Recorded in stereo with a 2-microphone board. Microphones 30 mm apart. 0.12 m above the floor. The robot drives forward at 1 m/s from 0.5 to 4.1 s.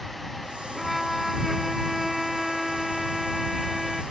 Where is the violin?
5° right (ahead or behind).